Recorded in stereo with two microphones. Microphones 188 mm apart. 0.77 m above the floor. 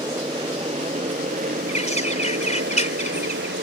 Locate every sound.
0.0 s a motorcycle: 25° right (ahead or behind); by 3.6 s 85° right
1.7 s a bird: 35° left (ahead or behind)